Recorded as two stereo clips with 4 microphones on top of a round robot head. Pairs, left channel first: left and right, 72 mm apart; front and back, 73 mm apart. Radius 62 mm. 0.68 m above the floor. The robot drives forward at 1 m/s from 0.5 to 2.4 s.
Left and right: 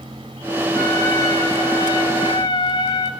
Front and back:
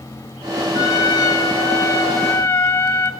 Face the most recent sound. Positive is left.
turn(degrees=40)